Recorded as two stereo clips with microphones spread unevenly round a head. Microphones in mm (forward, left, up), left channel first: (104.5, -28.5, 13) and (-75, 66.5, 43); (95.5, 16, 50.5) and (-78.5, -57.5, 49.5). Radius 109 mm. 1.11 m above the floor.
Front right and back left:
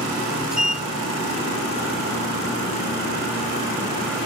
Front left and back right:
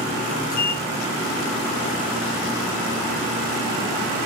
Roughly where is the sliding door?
Ahead left.